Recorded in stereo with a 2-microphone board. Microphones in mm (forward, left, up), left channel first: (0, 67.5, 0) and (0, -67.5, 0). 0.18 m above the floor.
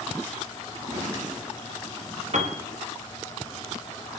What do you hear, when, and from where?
0.7 s laughter: 15° right (ahead or behind), 8 m
2.3 s a piano: 50° right (ahead or behind), 3 m